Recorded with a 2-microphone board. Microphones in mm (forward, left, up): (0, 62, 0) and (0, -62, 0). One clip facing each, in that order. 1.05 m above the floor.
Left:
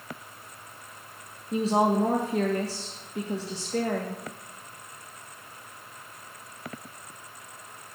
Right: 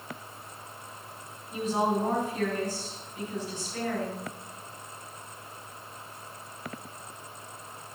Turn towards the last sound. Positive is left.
turn(degrees=75)  # may be behind; listen again after turning